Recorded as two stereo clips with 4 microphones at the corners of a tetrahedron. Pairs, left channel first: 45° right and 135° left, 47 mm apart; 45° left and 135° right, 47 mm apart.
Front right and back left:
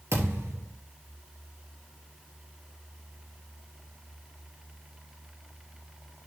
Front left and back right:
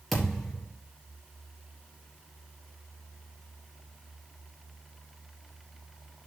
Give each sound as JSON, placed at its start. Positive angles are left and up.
{"t": 0.1, "sound": "a thud", "azimuth_deg": 135, "distance_m": 4.0}